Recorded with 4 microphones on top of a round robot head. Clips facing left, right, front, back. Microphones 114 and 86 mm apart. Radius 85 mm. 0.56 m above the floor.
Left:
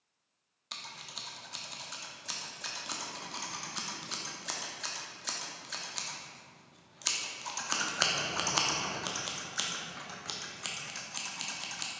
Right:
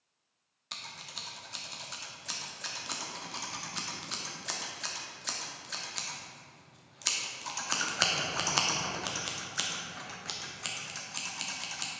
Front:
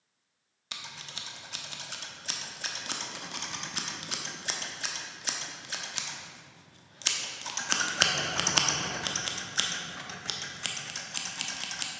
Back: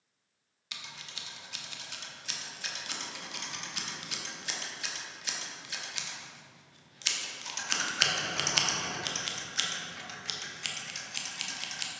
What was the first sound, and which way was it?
Scissors, straight ahead.